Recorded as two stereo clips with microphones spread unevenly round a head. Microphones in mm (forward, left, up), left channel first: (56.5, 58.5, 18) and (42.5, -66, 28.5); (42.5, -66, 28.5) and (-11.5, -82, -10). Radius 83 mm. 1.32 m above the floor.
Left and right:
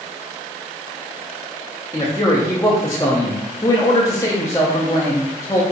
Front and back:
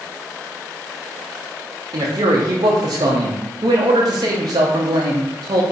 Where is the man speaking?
155° left, 0.5 m.